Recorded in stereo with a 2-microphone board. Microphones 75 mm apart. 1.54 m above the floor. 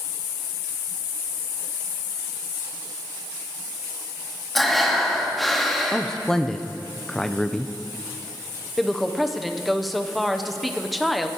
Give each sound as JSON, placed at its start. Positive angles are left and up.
{"t": 4.5, "sound": "breathing", "side_deg": 5, "distance_m": 1.2}
{"t": 5.9, "sound": "a man speaking", "side_deg": 10, "distance_m": 0.5}
{"t": 8.8, "sound": "a woman speaking", "side_deg": 0, "distance_m": 0.7}